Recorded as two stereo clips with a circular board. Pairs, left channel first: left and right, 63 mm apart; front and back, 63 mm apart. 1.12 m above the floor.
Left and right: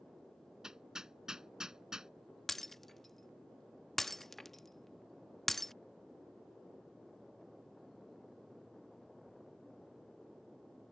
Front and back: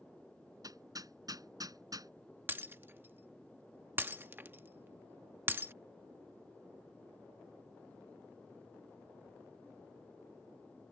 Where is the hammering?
170° right.